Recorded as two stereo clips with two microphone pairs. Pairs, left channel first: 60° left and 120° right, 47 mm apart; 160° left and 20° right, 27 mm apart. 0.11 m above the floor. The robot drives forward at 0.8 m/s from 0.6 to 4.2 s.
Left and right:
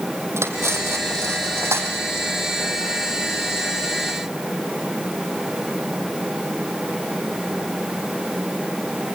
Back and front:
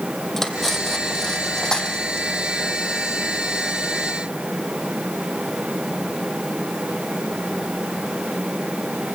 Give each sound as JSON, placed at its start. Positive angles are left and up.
{"t": 0.4, "sound": "cutlery clinking", "azimuth_deg": -115, "distance_m": 2.5}